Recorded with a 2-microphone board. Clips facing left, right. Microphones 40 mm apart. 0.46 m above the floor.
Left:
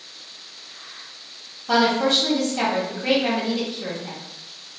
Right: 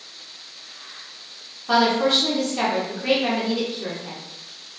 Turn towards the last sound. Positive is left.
turn(degrees=-10)  # may be behind; listen again after turning